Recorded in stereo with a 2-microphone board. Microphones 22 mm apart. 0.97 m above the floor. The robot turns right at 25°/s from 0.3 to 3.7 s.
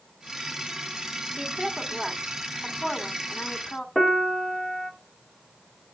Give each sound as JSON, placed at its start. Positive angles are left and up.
{"t": 1.4, "sound": "a woman speaking", "azimuth_deg": -5, "distance_m": 2.5}
{"t": 4.0, "sound": "a piano", "side_deg": 5, "distance_m": 1.9}